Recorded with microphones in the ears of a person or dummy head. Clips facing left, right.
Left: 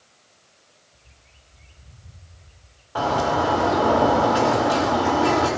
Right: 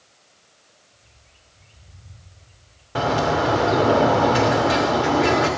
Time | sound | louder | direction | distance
0.9 | a bird | even | 35° left (ahead or behind) | 1.7 m
3.0 | a bird | right 1 dB | 20° right (ahead or behind) | 2.5 m